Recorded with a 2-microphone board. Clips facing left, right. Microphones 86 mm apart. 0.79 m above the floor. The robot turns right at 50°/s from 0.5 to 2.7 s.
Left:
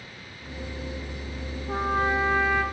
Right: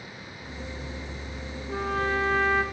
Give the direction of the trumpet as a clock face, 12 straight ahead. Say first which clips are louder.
Left 3 dB; 7 o'clock.